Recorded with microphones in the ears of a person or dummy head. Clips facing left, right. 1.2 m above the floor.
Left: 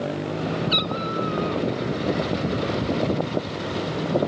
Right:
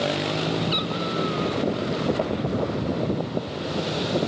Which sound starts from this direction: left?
A cat meowing, at 0.7 s.